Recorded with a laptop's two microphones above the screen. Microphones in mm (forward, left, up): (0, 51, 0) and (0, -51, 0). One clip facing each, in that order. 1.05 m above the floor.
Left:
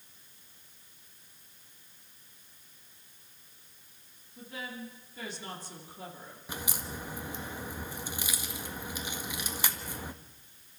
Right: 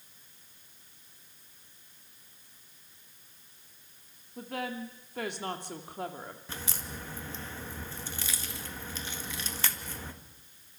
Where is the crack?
15° left (ahead or behind), 1.4 m.